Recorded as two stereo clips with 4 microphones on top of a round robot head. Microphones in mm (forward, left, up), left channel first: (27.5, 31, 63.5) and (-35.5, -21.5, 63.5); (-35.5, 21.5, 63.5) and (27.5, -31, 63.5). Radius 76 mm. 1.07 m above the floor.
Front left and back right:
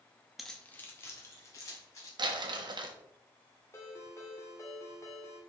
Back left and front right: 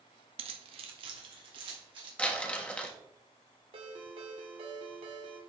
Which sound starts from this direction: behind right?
Crumpling, at 2.2 s.